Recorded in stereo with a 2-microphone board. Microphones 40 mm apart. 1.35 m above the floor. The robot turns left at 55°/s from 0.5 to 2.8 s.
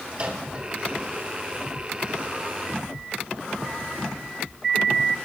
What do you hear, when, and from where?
0.1 s a microwave: 35° right (ahead or behind), 2.5 m; by 0.7 s 45° right (ahead or behind), 2.5 m